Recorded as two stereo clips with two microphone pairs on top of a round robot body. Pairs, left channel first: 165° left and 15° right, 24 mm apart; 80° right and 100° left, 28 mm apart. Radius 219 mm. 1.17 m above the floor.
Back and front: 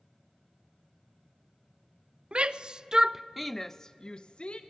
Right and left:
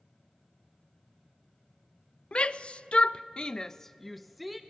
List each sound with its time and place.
2.3 s a shout: 45° right, 0.8 m; by 4.6 s 175° right, 0.9 m